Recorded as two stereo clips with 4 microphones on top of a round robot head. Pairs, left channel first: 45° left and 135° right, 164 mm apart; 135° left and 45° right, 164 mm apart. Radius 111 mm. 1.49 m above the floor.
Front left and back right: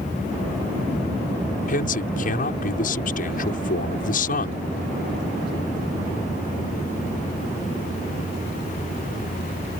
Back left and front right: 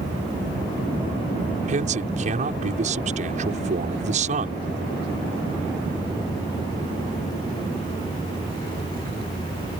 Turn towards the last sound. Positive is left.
turn(degrees=5)